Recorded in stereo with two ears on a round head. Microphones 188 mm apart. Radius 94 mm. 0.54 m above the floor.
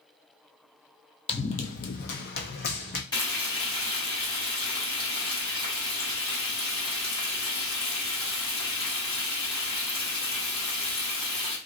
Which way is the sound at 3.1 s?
20° left (ahead or behind).